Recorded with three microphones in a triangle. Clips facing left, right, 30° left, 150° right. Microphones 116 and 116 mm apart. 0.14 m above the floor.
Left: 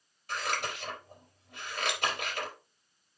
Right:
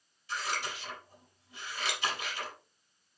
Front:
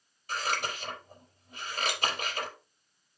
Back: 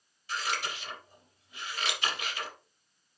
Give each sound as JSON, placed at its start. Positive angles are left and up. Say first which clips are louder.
{"t": 0.3, "sound": "scissors", "louder": "left 2 dB, front 2 dB", "azimuth_deg": 60, "distance_m": 4.0}